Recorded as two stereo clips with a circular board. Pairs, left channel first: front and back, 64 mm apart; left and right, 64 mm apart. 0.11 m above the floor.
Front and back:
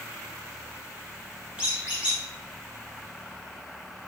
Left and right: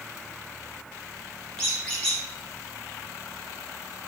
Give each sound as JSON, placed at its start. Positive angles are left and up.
{"t": 1.6, "sound": "a squeak", "azimuth_deg": 145, "distance_m": 1.1}